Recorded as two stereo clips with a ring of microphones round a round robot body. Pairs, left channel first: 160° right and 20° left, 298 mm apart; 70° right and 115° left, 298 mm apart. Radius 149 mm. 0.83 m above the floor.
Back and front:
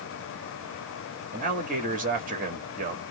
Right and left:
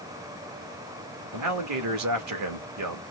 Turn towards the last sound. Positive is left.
turn(degrees=85)